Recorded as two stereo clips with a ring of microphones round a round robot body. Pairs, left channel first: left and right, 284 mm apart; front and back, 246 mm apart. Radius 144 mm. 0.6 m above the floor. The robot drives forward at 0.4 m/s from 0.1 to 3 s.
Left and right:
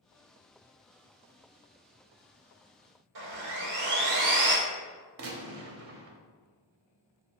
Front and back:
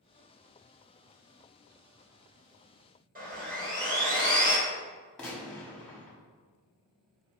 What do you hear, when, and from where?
3.1 s sawing: 120° right, 1.1 m
5.2 s a gunshot: 85° right, 0.7 m